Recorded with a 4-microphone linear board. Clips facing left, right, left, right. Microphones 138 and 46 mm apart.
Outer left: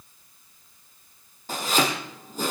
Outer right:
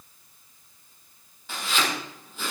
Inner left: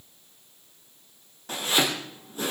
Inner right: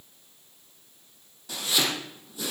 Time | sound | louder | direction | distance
1.5 | chopping | outer left 4 dB, inner left 2 dB | 40° left (ahead or behind) | 2.5 m